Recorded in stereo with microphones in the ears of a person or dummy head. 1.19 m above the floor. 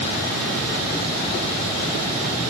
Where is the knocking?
No knocking in this recording.